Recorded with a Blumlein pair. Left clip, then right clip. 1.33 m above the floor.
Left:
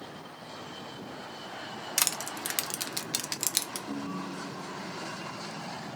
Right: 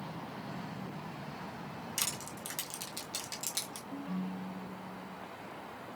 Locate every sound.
2.0 s crushing: 35° left, 0.5 m
3.9 s a ringtone: 50° left, 1.9 m